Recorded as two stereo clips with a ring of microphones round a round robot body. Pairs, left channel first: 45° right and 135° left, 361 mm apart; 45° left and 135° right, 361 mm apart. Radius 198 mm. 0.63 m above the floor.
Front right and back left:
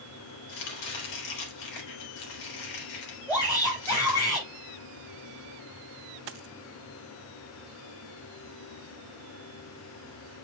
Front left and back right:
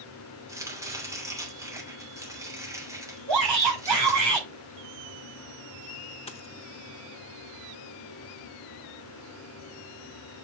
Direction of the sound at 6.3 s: 120° left.